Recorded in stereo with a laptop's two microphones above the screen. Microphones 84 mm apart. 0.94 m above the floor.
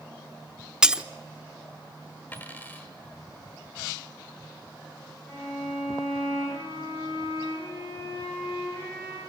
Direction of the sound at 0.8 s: 10° right (ahead or behind).